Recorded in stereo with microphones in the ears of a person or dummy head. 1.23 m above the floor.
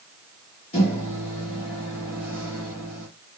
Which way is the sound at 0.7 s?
30° left (ahead or behind).